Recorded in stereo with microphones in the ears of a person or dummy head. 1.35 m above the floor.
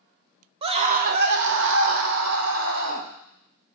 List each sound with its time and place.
0.6 s a scream: 30° right (ahead or behind), 0.7 m; by 3.1 s 80° right, 1.6 m